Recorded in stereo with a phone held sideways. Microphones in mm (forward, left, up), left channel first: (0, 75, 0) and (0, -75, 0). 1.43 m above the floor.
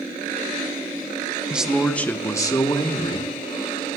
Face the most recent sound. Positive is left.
turn(degrees=35)  # may be behind; listen again after turning